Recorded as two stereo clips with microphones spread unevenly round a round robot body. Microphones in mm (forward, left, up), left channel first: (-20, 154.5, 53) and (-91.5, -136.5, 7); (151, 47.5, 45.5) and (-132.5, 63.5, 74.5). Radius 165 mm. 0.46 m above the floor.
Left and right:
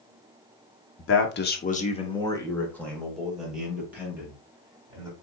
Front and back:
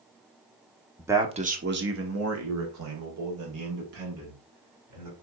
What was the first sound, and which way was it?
A man speaking, 85° left.